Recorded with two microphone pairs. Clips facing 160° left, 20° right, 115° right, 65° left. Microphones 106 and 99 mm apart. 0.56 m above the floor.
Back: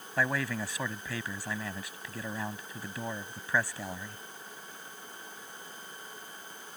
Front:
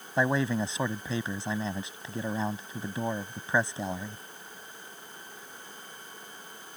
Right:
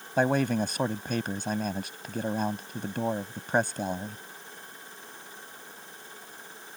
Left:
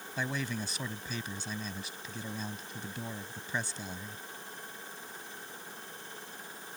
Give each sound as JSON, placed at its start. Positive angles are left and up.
{"t": 0.2, "sound": "a man speaking", "azimuth_deg": -85}